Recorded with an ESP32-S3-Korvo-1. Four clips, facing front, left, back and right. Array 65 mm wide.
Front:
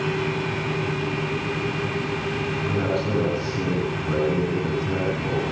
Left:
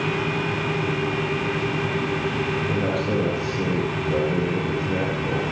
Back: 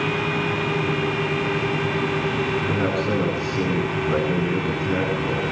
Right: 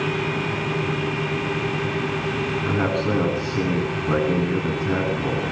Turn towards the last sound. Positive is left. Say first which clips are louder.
# right 1 dB, back 2 dB
turn(degrees=-100)